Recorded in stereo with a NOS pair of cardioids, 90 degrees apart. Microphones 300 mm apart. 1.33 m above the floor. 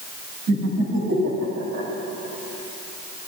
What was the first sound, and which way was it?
Laughter, 60° right.